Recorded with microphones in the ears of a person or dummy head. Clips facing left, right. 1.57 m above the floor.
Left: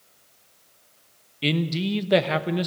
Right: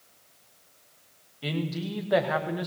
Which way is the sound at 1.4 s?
35° left (ahead or behind).